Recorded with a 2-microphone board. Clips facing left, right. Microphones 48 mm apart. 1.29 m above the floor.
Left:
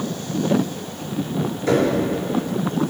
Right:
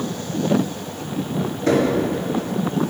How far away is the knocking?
About 2.5 m.